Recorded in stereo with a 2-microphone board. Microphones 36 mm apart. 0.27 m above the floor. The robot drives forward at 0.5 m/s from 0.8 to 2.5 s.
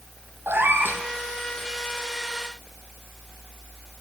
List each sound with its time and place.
0.5 s a cat meowing: 85° right, 1.3 m